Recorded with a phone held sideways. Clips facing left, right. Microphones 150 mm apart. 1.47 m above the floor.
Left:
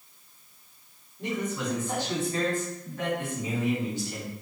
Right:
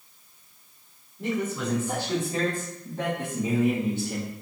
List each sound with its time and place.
1.2 s a man speaking: 10° right (ahead or behind), 3.5 m; by 4.3 s 65° right (ahead or behind), 2 m